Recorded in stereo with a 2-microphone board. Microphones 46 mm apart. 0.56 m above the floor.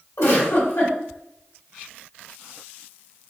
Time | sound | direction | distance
0.2 | a giggle | 70° left (ahead or behind) | 1.4 m